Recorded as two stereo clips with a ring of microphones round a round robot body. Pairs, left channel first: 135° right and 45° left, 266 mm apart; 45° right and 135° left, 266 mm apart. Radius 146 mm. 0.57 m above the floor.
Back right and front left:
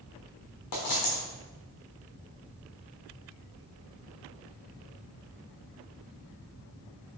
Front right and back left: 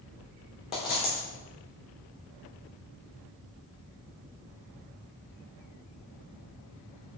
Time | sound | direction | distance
0.7 | a dropped coin | 115° right | 3 m